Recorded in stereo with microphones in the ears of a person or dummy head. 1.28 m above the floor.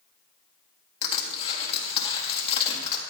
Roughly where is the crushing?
Left.